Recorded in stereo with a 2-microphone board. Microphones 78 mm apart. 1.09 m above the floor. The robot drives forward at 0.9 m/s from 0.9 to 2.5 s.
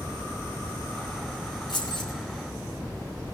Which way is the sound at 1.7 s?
80° left.